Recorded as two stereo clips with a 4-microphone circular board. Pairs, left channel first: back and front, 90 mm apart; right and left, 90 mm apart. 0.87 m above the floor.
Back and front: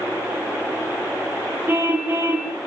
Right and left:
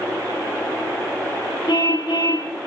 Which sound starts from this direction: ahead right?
A car horn, at 1.7 s.